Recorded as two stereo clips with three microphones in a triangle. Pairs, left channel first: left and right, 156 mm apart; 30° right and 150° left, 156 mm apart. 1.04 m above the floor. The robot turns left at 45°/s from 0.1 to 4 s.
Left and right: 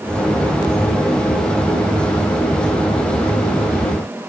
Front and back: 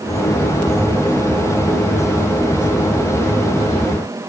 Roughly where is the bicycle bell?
No bicycle bell in this recording.